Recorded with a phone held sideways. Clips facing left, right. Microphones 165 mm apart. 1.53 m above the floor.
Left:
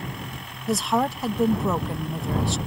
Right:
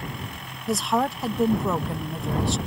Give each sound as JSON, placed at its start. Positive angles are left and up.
{"t": 0.7, "sound": "a woman speaking", "side_deg": 0}